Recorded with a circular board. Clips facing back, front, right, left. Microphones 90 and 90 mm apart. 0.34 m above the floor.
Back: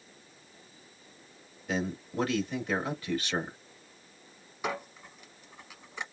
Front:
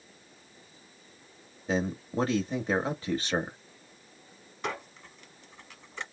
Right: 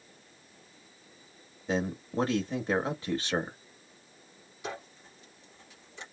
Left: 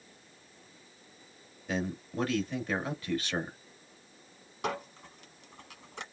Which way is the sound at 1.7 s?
40° right.